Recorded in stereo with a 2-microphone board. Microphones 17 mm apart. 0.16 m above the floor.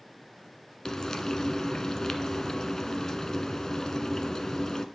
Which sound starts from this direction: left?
Frying, at 0.8 s.